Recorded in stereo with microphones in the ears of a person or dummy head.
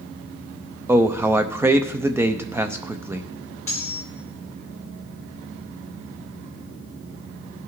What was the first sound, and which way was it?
A man speaking, 10° right (ahead or behind).